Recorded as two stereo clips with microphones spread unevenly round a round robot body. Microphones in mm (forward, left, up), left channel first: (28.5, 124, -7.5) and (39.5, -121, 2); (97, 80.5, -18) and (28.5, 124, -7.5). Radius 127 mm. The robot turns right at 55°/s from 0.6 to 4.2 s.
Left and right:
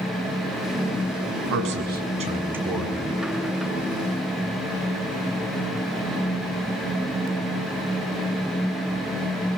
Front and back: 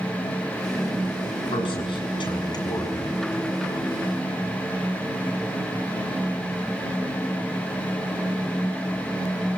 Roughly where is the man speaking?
Ahead right.